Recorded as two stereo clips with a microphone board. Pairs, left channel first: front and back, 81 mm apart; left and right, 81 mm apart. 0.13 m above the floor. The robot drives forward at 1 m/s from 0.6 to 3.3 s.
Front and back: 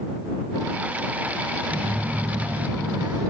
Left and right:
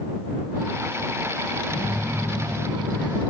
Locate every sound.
1.7 s a phone buzzing: 160° left, 9 m; by 3.2 s 165° left, 10.5 m